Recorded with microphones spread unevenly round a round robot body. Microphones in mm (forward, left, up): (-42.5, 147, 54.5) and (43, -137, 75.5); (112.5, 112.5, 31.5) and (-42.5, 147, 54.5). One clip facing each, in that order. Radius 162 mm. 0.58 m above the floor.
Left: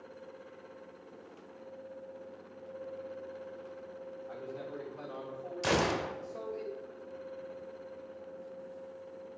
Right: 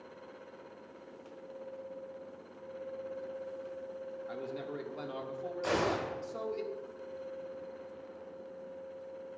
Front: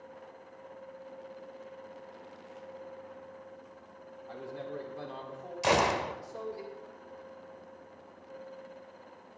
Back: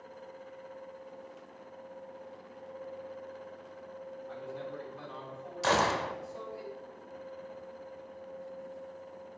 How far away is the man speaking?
About 1.8 m.